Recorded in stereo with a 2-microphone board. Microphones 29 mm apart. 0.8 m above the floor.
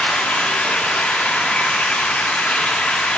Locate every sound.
0.0 s running water: 60° left (ahead or behind), 1.0 m